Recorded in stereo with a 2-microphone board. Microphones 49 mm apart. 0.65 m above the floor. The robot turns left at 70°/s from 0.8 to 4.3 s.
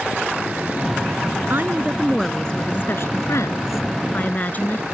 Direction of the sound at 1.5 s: 130° right.